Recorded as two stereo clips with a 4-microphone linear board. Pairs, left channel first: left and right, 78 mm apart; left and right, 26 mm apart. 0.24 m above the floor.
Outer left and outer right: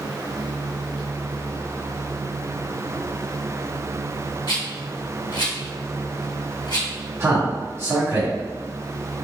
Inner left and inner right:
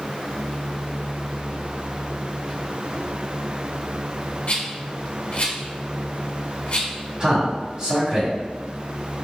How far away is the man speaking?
About 1.7 m.